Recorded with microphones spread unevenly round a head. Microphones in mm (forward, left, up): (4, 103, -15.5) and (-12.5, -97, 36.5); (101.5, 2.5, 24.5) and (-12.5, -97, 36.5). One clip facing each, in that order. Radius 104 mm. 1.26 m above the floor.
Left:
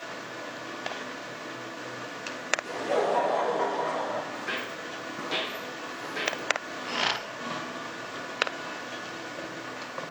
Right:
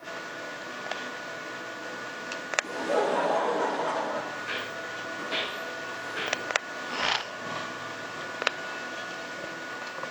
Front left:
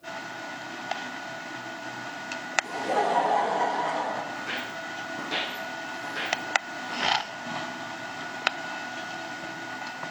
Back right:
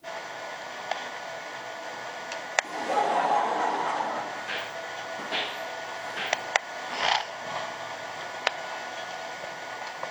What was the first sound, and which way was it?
Laughter, 10° right.